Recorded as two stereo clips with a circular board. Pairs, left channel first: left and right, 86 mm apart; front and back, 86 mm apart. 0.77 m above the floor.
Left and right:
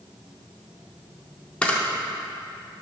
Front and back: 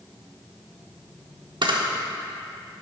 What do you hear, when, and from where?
1.6 s a camera shutter: 170° left, 0.6 m